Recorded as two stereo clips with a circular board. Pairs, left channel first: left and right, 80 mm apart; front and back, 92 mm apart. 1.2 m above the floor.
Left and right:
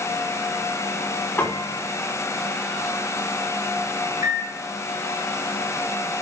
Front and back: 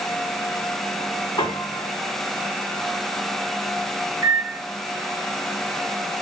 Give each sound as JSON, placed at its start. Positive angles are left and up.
{"t": 1.4, "sound": "a piano", "azimuth_deg": 30, "distance_m": 2.5}
{"t": 4.2, "sound": "a microwave", "azimuth_deg": -125, "distance_m": 1.2}